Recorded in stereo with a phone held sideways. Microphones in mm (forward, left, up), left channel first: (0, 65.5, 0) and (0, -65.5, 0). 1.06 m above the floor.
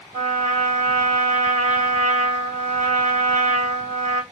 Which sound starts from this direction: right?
A trumpet, at 0.1 s.